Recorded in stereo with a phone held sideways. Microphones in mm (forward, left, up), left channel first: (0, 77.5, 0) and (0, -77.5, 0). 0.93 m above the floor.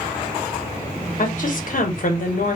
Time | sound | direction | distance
1.2 | a woman speaking | 60° left (ahead or behind) | 0.7 m